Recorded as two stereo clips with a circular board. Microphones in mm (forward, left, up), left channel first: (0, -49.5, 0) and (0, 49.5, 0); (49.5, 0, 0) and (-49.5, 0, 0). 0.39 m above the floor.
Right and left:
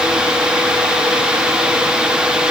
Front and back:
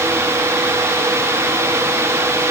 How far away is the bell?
No bell in this recording.